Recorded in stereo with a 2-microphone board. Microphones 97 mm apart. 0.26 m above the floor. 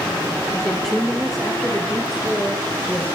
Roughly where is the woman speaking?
Centre.